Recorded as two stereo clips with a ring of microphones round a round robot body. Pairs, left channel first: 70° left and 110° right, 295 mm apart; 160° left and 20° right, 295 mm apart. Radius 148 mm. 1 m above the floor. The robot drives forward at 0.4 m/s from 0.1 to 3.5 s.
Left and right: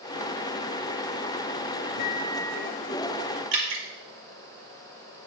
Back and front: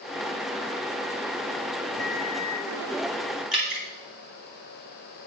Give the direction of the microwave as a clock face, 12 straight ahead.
9 o'clock.